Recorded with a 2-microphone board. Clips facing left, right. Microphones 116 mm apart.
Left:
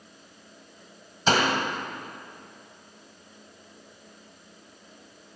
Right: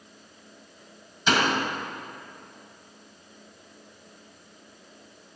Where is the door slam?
40° left (ahead or behind), 1.6 m.